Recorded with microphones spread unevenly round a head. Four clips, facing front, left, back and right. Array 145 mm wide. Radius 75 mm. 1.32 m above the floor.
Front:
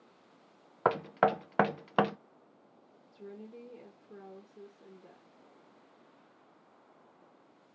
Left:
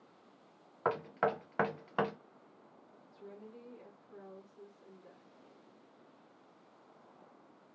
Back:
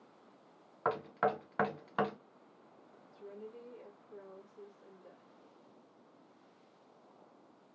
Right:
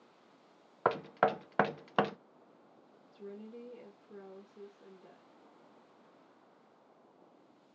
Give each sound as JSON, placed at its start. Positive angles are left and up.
{"t": 0.8, "sound": "knocking", "azimuth_deg": -35, "distance_m": 0.5}
{"t": 3.1, "sound": "a woman speaking", "azimuth_deg": -35, "distance_m": 1.4}